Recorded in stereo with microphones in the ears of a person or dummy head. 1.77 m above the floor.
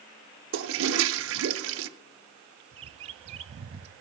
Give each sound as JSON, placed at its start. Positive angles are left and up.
{"t": 0.5, "sound": "a toilet flushing", "side_deg": -75, "distance_m": 0.8}
{"t": 2.7, "sound": "a bird", "side_deg": -35, "distance_m": 0.6}